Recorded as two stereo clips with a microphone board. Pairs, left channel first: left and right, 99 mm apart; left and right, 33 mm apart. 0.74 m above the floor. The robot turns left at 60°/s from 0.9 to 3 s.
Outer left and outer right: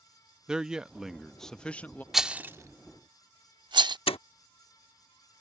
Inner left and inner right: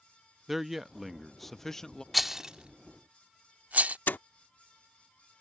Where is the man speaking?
10° right (ahead or behind); by 2.0 s 15° left (ahead or behind).